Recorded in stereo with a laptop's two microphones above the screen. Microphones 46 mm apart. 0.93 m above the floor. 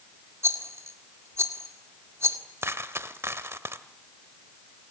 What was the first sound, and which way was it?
A rattle, 80° right.